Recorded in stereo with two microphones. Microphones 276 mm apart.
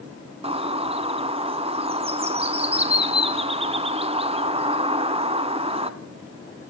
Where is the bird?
20° right (ahead or behind), 0.7 m.